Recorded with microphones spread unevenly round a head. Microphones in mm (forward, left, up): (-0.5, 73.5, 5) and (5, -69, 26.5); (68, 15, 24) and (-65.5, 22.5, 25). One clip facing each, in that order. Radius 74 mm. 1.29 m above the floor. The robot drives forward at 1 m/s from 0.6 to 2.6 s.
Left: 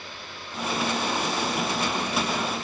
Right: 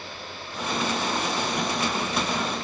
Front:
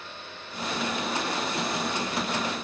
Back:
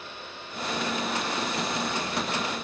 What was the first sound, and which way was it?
Only background noise.